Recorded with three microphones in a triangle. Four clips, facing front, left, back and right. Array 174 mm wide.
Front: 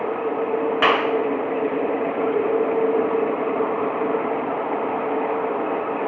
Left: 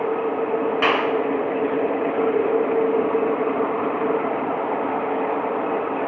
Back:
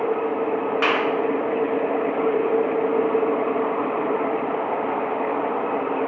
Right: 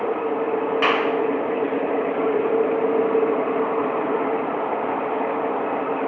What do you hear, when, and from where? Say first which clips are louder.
0.8 s a clap: even, front 4 dB; straight ahead, 2.5 m